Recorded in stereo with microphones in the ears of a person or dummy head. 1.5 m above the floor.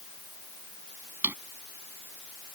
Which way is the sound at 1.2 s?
10° right (ahead or behind).